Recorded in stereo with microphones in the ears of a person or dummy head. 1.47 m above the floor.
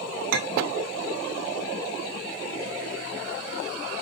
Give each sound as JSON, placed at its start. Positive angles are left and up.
{"t": 0.3, "sound": "a clink", "side_deg": -50, "distance_m": 0.7}